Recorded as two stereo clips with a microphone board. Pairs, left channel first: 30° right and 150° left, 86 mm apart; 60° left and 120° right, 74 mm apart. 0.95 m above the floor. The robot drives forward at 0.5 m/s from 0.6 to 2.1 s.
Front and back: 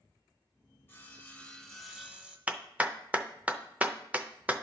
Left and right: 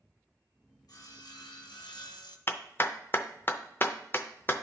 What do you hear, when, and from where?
0.9 s sawing: 35° left, 1.0 m; by 2.4 s 75° left, 0.6 m
2.5 s a clap: 90° left, 0.5 m